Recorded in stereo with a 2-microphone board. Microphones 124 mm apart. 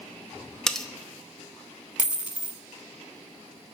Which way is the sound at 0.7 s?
5° left (ahead or behind).